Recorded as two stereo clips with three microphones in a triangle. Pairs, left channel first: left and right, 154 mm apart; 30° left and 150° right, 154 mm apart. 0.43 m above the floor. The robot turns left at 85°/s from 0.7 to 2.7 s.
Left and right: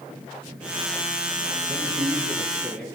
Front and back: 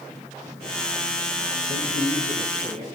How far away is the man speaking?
About 4 m.